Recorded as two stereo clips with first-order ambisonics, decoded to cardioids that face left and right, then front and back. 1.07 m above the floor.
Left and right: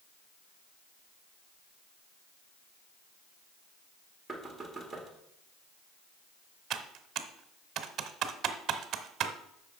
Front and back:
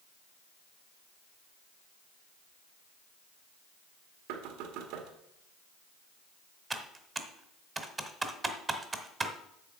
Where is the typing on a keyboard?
110° right, 1.0 m.